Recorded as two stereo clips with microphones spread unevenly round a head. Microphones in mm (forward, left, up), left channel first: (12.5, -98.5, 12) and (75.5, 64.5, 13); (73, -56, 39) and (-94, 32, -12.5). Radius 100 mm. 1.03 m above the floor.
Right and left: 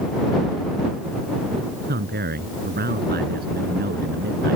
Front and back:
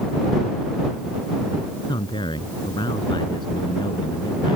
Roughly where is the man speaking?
Ahead left.